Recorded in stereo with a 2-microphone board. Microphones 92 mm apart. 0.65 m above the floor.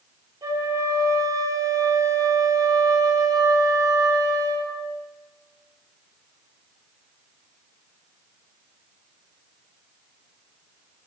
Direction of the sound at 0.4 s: 40° right (ahead or behind).